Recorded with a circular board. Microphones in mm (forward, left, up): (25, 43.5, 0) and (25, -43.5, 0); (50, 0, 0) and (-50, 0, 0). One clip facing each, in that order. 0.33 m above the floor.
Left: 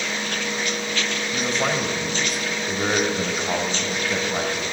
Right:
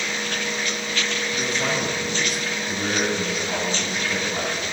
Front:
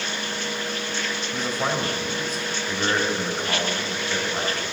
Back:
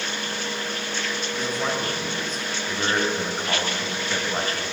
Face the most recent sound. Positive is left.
turn(degrees=120)